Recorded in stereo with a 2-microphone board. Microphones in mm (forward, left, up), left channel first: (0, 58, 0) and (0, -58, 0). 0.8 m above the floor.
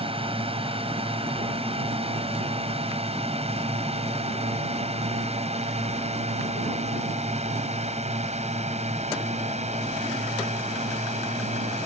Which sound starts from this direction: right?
A drone, at 0.0 s.